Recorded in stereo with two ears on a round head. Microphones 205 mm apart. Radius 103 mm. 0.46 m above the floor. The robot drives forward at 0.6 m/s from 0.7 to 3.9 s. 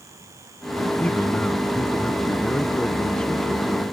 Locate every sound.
1.0 s a man speaking: 5° left (ahead or behind)